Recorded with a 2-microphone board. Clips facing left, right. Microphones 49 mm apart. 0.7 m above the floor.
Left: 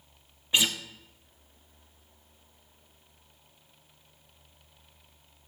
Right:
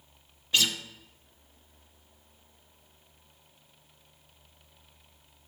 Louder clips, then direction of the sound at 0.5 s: Left 1 dB; 20° left (ahead or behind).